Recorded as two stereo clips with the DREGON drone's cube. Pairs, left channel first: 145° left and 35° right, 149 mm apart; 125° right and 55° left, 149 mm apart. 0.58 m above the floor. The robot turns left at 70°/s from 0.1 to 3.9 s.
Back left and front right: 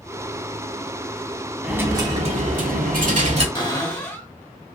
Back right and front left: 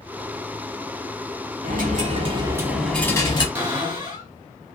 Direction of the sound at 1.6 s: 50° left.